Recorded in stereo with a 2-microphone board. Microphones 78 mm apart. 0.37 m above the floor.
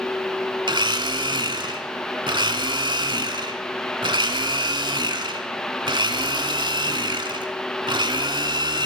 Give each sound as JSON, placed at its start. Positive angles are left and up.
{"t": 0.7, "sound": "a blender", "side_deg": -80, "distance_m": 1.0}